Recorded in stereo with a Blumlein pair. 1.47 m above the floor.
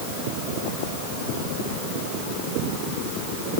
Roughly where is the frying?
I don't hear frying.